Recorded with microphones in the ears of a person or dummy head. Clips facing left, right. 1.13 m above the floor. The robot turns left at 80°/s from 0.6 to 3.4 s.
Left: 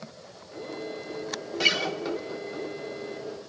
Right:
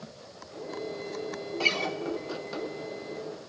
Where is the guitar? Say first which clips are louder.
Left 2 dB; 15° left (ahead or behind), 0.7 m; by 2.0 s centre (ahead or behind), 0.7 m.